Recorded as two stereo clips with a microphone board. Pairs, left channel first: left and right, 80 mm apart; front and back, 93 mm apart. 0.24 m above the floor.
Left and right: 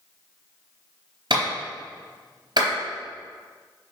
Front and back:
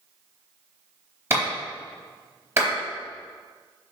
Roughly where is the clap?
Behind right.